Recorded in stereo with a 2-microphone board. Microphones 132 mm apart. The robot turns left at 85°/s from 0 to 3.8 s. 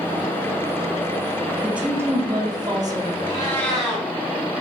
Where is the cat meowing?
45° left, 1.8 m; by 4.1 s 5° right, 1.8 m.